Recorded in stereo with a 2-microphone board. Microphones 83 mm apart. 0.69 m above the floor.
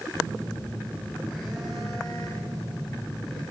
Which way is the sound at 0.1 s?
Centre (ahead or behind).